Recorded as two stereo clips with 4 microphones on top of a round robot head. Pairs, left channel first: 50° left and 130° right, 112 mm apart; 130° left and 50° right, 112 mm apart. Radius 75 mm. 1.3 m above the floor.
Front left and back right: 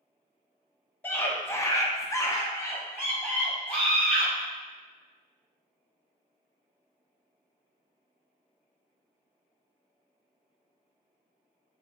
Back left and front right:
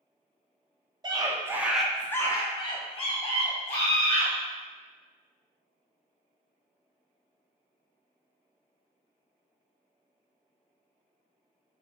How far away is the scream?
About 0.7 m.